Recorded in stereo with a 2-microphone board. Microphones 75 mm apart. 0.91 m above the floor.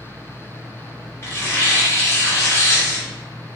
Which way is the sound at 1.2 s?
35° left (ahead or behind).